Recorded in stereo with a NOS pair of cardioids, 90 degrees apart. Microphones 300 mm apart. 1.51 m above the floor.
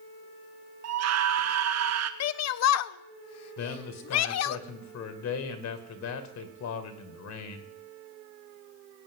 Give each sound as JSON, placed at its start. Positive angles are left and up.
{"t": 0.8, "sound": "a scream", "azimuth_deg": -60, "distance_m": 1.0}
{"t": 2.2, "sound": "a shout", "azimuth_deg": 60, "distance_m": 0.6}
{"t": 3.6, "sound": "a man speaking", "azimuth_deg": 65, "distance_m": 1.9}